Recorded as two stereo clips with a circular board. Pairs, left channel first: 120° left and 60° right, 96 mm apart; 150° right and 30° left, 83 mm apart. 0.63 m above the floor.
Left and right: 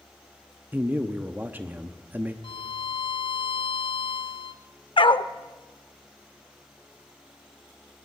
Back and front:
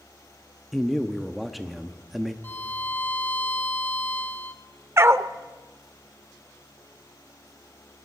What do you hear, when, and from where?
0.7 s a man speaking: 55° right, 0.9 m
2.4 s a violin: 145° left, 0.8 m
5.0 s a dog barking: 90° left, 0.6 m